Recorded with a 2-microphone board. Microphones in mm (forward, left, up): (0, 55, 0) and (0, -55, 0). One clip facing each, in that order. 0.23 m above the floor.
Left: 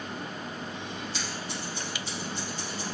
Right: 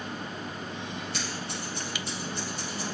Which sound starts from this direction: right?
Scissors, at 1.1 s.